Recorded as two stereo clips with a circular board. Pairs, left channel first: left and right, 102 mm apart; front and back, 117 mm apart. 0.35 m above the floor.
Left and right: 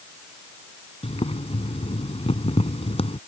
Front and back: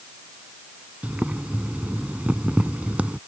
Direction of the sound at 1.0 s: 100° left.